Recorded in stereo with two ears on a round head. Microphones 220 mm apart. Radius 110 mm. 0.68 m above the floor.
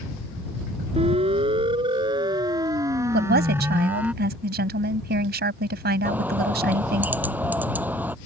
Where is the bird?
5° right (ahead or behind).